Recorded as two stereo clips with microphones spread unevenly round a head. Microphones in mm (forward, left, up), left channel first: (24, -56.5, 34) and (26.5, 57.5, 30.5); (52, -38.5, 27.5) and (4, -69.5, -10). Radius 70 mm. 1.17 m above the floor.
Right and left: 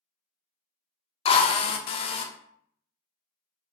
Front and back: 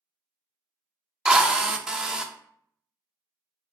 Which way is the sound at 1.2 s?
55° right.